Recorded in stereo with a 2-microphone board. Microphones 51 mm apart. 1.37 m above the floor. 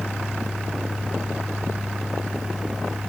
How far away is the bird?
I don't hear a bird.